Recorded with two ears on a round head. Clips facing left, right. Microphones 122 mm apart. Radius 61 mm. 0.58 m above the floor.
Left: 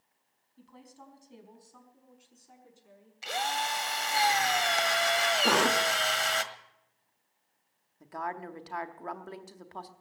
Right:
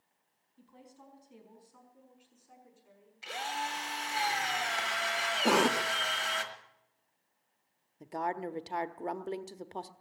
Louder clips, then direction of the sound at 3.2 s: Left 5 dB; 65° left (ahead or behind).